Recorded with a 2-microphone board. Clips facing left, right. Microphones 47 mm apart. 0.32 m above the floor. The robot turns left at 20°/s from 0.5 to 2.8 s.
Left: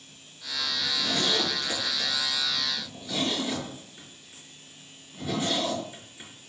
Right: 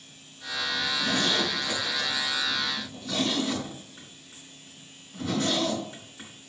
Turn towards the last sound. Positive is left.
turn(degrees=-70)  # may be behind; listen again after turning